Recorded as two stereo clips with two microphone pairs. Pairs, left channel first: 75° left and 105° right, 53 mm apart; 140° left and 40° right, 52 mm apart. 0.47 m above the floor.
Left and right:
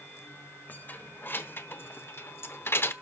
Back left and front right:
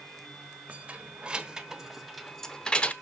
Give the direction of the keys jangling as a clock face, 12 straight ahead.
11 o'clock.